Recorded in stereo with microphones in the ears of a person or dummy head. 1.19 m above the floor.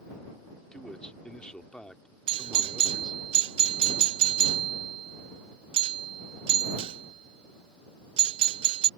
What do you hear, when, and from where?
0.7 s a man speaking: 5° left (ahead or behind)
2.3 s a doorbell: 30° right (ahead or behind)